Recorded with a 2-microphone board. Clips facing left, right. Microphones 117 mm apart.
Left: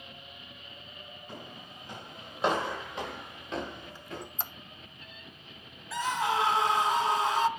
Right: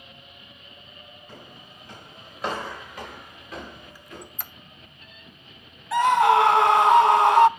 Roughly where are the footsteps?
Centre.